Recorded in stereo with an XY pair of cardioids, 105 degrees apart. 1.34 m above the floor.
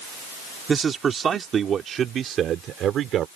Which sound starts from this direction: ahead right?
A man speaking, at 0.7 s.